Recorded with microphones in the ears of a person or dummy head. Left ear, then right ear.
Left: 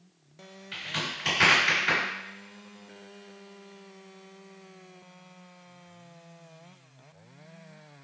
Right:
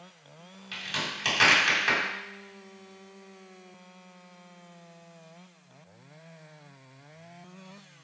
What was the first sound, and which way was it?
A crack, 30° right (ahead or behind).